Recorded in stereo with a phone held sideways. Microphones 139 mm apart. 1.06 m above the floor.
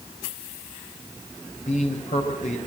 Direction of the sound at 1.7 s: 60° left (ahead or behind).